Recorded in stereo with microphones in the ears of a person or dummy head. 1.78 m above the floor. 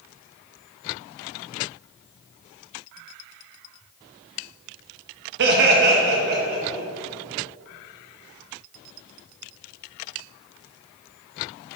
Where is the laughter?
60° right (ahead or behind), 0.9 m; by 6.8 s 50° right (ahead or behind), 2.5 m.